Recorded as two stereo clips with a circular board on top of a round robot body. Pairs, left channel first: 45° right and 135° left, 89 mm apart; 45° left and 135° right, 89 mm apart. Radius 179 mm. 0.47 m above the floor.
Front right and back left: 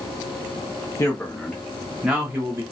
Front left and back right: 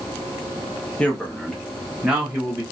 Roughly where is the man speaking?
Ahead.